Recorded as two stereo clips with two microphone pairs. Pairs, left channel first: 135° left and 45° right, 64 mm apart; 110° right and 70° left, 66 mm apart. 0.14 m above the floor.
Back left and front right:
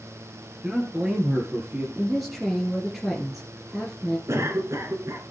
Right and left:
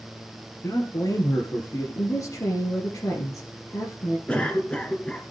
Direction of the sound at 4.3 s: 50° right.